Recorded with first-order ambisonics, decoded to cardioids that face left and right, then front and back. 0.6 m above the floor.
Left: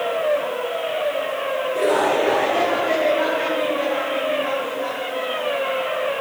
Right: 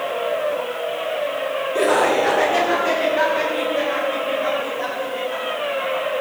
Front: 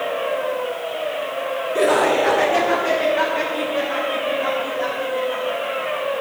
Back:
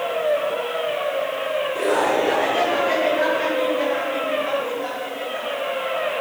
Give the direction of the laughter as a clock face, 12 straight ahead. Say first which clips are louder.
Right 2 dB, front 5 dB; 1 o'clock.